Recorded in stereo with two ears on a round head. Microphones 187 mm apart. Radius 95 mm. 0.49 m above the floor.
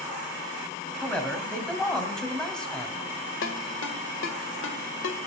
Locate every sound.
1.0 s a man speaking: 5° left (ahead or behind), 3 m
3.4 s a ringtone: 60° left (ahead or behind), 1.5 m